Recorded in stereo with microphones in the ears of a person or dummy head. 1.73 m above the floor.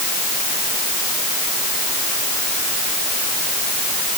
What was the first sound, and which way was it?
Only background noise.